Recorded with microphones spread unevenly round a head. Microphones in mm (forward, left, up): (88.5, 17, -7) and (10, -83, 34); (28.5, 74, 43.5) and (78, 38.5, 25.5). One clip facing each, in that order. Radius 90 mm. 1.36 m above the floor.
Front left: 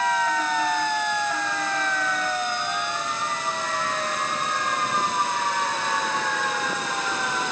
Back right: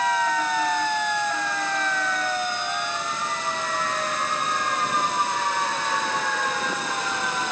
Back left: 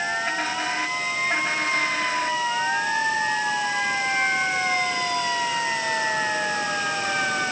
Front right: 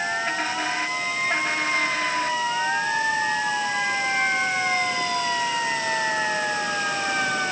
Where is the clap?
I don't hear a clap.